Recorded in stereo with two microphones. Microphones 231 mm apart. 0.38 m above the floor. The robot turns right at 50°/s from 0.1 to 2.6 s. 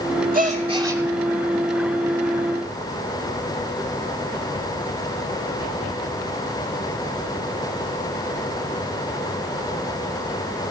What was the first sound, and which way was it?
A gasp, 45° right.